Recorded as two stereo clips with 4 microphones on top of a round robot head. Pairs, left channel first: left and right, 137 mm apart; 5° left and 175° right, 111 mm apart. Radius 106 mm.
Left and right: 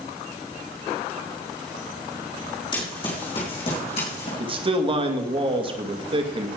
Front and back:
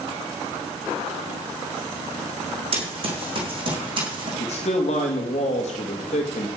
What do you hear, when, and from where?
2.7 s running footsteps: 155° left, 4.5 m; by 4.3 s 145° left, 4.5 m
4.4 s a man speaking: 40° right, 2 m